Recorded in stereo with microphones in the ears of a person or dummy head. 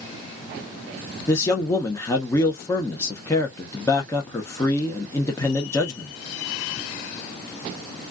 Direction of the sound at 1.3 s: 5° left (ahead or behind).